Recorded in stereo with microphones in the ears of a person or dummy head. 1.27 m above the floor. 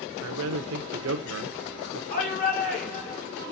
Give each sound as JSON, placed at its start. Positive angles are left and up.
{"t": 0.2, "sound": "a man speaking", "side_deg": -70, "distance_m": 1.0}
{"t": 2.1, "sound": "a shout", "side_deg": 40, "distance_m": 3.0}